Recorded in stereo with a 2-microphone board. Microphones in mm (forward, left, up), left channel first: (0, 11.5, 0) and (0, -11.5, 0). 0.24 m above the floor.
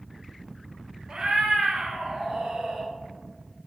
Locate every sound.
1.1 s a cat meowing: 40° right (ahead or behind), 0.5 m; by 2.9 s 70° right (ahead or behind), 1.3 m